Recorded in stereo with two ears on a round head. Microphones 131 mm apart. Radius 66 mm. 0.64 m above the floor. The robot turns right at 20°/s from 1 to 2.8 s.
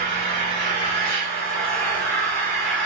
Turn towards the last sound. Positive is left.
turn(degrees=165)